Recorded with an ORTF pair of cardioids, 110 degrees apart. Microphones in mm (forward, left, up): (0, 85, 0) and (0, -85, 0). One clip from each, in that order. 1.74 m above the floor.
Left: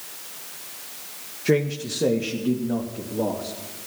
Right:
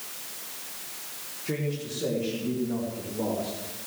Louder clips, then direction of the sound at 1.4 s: Left 10 dB; 65° left.